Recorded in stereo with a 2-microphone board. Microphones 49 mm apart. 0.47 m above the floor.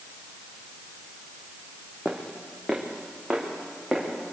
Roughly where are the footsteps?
Centre.